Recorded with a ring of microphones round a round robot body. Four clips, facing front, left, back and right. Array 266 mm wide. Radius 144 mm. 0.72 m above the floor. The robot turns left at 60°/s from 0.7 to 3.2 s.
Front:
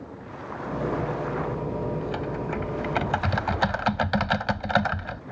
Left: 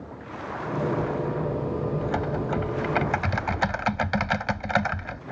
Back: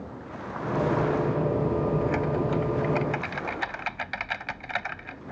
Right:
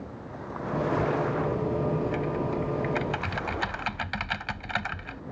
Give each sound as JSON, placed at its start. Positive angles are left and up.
{"t": 2.0, "sound": "typing on a keyboard", "azimuth_deg": 105}